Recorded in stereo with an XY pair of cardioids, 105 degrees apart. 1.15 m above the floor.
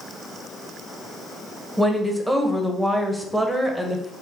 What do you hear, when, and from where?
1.8 s a woman speaking: 5° right, 0.7 m